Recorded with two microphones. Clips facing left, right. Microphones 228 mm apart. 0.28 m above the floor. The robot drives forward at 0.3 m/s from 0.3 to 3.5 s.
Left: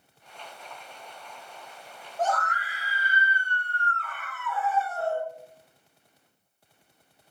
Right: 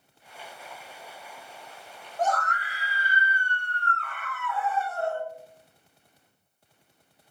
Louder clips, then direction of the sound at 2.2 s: Right 1 dB; 5° left (ahead or behind).